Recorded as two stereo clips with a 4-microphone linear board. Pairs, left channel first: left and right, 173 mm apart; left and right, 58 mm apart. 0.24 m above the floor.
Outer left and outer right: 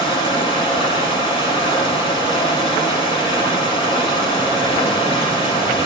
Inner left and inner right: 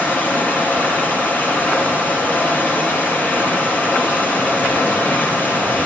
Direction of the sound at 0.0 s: 30° left (ahead or behind).